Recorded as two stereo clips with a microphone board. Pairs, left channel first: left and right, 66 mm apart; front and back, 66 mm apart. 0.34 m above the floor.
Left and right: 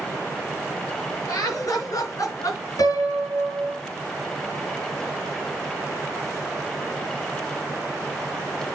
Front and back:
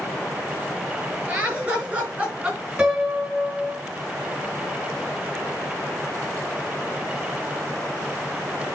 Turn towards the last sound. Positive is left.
turn(degrees=115)